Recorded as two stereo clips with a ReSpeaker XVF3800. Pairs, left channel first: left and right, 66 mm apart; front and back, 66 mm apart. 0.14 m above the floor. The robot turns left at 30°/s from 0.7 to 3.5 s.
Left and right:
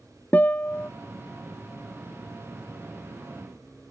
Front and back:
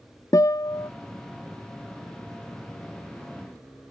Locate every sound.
0.3 s a guitar: 25° left; by 0.9 s 20° left